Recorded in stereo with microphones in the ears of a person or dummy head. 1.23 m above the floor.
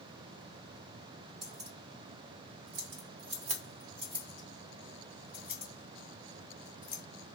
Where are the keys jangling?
35° right (ahead or behind), 1.0 m; by 7.0 s 5° right (ahead or behind), 3 m.